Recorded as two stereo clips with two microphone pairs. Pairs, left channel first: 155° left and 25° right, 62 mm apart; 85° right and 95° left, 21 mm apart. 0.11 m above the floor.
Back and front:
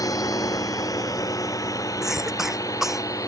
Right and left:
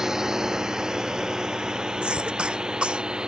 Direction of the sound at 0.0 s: 155° left.